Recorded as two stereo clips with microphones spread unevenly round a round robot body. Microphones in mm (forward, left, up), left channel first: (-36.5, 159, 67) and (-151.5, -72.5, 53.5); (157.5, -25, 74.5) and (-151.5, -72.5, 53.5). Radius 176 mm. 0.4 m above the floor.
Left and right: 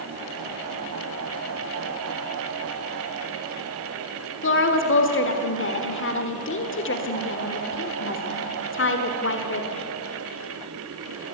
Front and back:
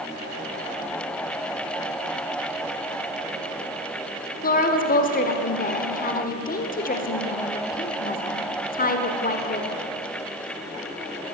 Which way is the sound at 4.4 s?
65° left.